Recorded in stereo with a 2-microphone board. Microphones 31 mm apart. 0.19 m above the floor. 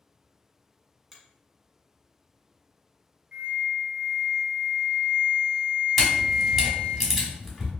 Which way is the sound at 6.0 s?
10° right (ahead or behind).